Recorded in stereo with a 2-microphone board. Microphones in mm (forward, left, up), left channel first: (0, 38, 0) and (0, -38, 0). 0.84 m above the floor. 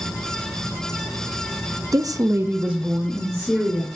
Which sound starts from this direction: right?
A woman speaking, at 1.9 s.